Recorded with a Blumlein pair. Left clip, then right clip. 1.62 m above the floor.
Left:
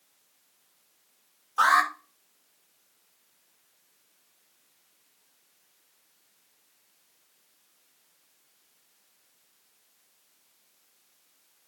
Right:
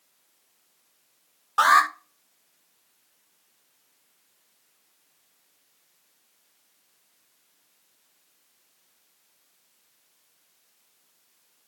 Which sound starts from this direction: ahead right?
An alarm, at 1.6 s.